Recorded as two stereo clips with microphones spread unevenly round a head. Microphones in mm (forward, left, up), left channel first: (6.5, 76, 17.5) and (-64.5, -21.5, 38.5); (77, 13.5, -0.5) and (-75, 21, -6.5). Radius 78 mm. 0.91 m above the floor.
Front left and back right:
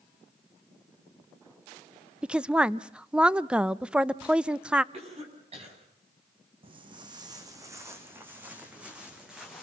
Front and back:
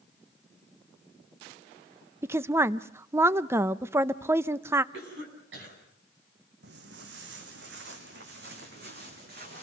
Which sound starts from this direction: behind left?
A woman speaking, at 2.2 s.